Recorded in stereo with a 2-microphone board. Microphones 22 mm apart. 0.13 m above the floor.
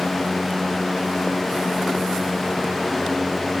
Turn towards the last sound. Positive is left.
No sound to turn to.